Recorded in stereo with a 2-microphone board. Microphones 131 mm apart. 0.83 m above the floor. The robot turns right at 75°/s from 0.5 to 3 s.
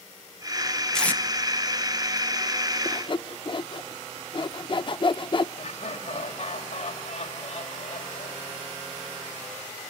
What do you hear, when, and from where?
0.9 s tape being pulled: 5° left (ahead or behind), 0.9 m; by 1.2 s 20° left (ahead or behind), 0.9 m
2.9 s sawing: 30° left (ahead or behind), 0.5 m; by 5.5 s 40° left (ahead or behind), 0.5 m
5.6 s laughter: 50° left (ahead or behind), 3 m